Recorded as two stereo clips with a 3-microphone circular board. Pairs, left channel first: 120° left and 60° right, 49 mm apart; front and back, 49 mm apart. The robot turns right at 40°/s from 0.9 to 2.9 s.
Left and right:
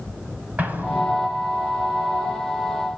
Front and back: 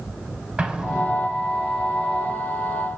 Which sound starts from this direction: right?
An explosion, at 0.6 s.